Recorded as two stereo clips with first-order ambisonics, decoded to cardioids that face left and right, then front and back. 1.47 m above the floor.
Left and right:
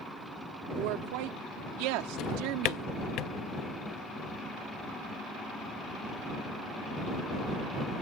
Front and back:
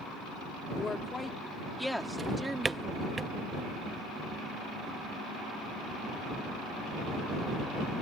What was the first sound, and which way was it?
A woman speaking, 75° right.